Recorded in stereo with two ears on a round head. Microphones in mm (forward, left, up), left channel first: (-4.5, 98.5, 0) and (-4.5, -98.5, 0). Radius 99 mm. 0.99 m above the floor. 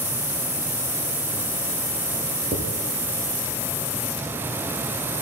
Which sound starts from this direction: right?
Writing, at 2.5 s.